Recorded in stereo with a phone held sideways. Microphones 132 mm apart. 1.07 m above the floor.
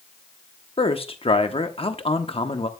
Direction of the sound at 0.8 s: 45° left (ahead or behind).